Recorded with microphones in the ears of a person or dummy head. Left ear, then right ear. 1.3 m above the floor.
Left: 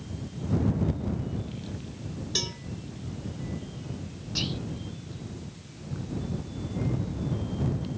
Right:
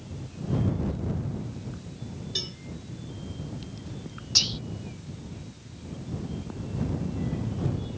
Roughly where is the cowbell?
Left.